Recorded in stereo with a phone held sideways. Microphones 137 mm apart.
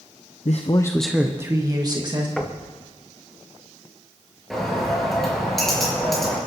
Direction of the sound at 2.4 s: Centre (ahead or behind).